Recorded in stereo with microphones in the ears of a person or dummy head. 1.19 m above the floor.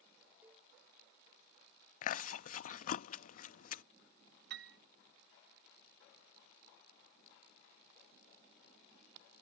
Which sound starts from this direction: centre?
A cowbell, at 0.4 s.